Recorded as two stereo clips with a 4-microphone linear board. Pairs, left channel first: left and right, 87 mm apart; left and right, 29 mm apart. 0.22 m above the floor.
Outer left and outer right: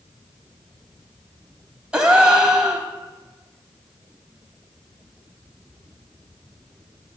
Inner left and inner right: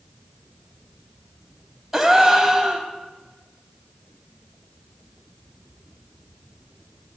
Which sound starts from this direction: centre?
A gasp, at 1.9 s.